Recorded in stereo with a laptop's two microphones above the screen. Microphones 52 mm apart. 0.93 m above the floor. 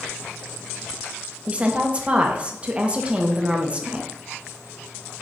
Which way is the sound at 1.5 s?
25° right (ahead or behind).